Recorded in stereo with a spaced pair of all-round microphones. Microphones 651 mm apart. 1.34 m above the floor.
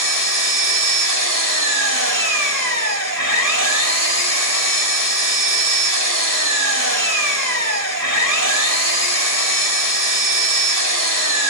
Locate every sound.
0.0 s an engine running: 25° right (ahead or behind), 1.9 m